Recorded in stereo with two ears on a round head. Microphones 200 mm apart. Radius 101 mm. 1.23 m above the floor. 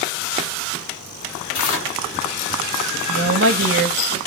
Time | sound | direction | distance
1.5 | tearing paper | 60° left (ahead or behind) | 1.3 m
3.1 | a woman speaking | 65° right (ahead or behind) | 0.9 m